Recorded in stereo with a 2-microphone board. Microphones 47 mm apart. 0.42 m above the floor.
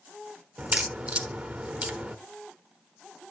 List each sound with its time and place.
0.6 s a crack: 25° right (ahead or behind), 0.8 m